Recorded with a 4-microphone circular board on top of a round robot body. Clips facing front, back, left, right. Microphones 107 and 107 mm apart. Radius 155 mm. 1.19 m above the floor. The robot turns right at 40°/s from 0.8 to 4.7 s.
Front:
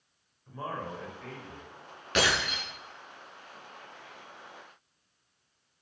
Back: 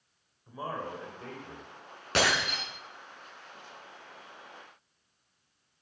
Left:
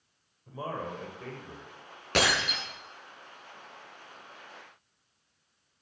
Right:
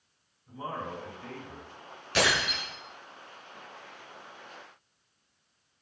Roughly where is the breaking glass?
Behind left.